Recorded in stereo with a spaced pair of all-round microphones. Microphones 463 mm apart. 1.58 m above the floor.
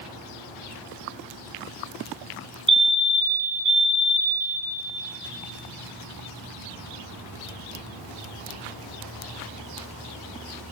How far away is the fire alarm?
About 1.0 m.